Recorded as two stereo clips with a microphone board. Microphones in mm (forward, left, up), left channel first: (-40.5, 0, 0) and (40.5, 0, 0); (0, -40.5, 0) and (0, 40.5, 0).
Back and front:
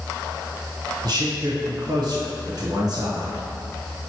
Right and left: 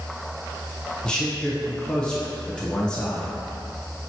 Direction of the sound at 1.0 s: 15° right.